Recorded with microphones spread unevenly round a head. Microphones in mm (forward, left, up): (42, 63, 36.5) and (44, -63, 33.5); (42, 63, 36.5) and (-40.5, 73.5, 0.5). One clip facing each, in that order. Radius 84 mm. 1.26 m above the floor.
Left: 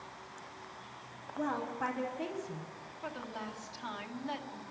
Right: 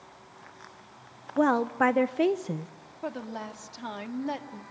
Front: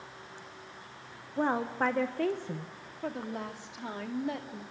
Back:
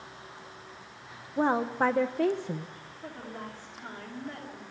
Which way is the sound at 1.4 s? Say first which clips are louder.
Right 12 dB, back 3 dB; 115° right.